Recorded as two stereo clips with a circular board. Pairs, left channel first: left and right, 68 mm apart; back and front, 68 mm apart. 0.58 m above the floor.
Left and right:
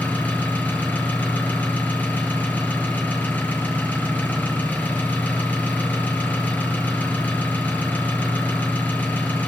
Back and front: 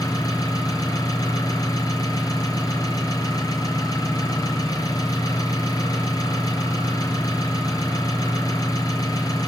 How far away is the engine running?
About 7 m.